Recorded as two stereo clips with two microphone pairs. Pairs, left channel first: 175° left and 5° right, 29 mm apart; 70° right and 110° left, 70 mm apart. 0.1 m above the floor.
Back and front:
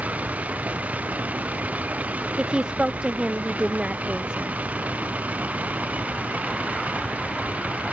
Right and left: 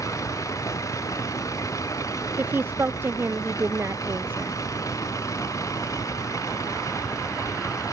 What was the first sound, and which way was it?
A vehicle, 30° right.